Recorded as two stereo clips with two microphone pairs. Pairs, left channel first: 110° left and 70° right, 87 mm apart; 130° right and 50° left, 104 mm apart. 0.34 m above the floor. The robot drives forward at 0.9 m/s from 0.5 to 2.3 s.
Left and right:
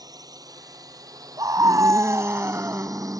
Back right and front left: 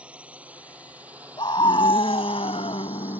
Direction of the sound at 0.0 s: 30° right.